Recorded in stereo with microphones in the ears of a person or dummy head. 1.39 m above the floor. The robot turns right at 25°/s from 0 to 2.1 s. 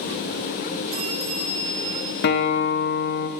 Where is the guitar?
50° left (ahead or behind), 1.0 m.